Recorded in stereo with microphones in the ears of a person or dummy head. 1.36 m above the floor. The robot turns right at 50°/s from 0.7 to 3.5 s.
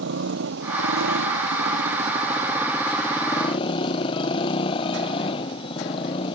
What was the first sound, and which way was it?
A motorcycle, 115° right.